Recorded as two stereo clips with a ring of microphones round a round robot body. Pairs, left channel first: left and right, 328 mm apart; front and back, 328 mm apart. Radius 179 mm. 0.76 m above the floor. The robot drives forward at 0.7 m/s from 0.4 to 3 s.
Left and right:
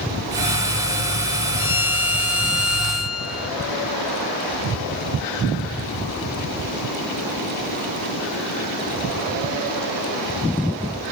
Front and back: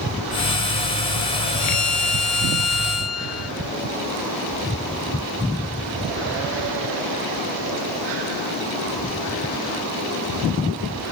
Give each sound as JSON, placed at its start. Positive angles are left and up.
{"t": 1.6, "sound": "a violin", "azimuth_deg": 40}